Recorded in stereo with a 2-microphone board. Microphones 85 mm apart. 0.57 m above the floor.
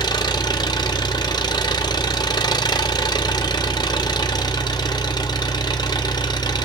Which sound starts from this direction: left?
An engine running, at 0.0 s.